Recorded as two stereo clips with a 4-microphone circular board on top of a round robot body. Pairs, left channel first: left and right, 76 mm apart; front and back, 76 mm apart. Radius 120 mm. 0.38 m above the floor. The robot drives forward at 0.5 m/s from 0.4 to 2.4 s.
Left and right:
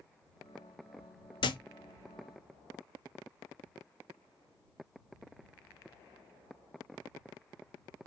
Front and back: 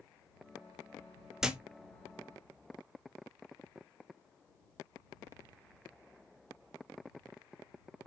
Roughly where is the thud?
Left.